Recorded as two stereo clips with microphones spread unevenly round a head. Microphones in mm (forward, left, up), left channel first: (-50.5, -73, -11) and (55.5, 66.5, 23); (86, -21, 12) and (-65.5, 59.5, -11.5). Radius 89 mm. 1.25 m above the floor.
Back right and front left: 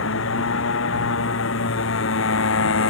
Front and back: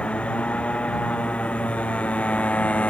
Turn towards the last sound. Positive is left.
turn(degrees=-110)